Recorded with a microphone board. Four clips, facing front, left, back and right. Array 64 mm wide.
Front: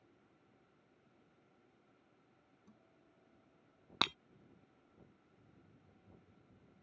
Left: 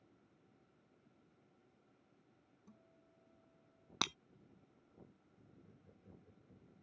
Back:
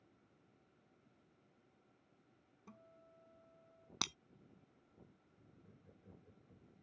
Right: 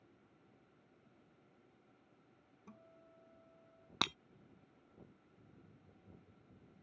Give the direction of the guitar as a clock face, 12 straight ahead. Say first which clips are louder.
Right 7 dB, back 8 dB; 4 o'clock.